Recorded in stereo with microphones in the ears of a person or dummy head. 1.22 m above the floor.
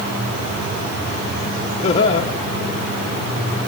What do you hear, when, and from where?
1.8 s laughter: 35° left (ahead or behind), 1.1 m